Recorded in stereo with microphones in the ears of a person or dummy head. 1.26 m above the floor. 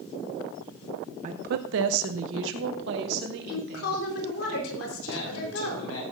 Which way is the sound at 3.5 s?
90° left.